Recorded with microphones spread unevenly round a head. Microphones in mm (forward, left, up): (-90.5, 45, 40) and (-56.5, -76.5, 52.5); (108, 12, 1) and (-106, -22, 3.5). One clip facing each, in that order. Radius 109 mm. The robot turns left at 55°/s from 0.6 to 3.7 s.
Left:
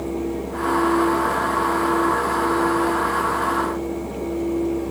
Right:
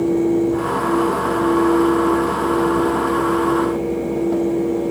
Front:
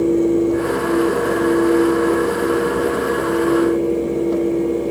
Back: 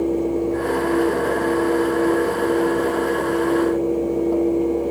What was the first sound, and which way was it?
Only background noise.